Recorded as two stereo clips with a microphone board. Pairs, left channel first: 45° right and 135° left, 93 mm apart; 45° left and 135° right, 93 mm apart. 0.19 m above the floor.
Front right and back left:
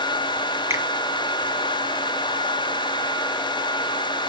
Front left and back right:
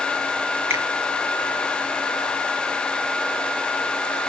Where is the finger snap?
175° left, 1.6 m.